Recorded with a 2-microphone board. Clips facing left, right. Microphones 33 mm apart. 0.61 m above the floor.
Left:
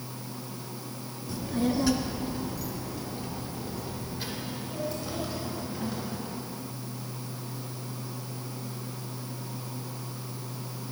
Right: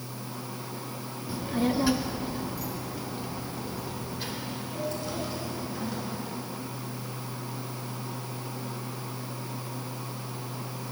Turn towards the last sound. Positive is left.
turn(degrees=5)  # may be behind; listen again after turning